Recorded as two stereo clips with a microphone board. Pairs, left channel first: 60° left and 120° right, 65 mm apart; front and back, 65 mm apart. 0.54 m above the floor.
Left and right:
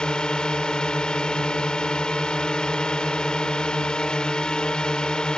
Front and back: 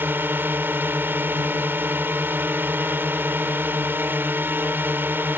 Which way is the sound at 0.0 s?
135° left.